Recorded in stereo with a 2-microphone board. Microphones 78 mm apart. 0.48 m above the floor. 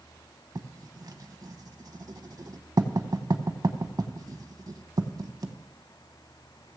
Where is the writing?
55° right (ahead or behind), 0.8 m.